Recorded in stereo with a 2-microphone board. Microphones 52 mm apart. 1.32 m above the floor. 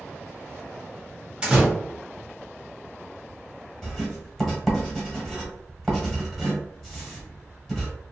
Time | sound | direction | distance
1.4 | a door slam | 20° right (ahead or behind) | 1.0 m
3.8 | writing | 5° left (ahead or behind) | 1.2 m